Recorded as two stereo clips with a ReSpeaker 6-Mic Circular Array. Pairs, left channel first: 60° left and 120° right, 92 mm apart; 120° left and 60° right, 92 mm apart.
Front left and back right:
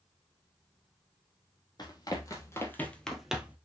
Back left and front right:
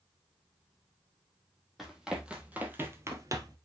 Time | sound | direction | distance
1.8 | running footsteps | 25° left | 2.5 m